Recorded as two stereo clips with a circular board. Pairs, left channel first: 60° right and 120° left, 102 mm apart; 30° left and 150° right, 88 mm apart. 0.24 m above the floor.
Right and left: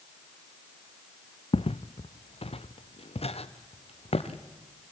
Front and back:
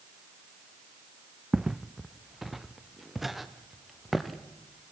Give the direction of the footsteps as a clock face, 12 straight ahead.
2 o'clock.